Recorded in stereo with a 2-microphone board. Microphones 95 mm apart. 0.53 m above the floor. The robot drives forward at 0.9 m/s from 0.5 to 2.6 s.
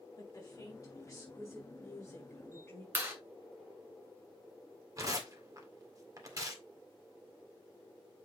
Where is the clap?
25° right (ahead or behind), 3 m.